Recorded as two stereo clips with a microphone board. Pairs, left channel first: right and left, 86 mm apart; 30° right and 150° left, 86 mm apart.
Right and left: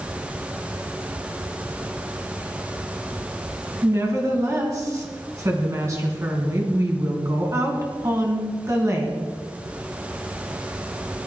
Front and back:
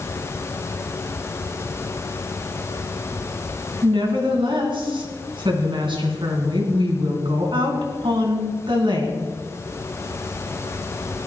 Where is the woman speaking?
140° left, 3.5 m.